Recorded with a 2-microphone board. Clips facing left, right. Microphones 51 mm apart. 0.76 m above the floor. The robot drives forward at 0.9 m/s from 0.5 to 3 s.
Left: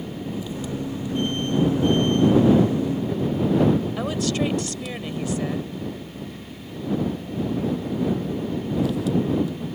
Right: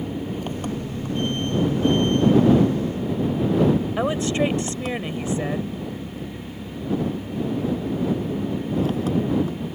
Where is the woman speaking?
25° right (ahead or behind).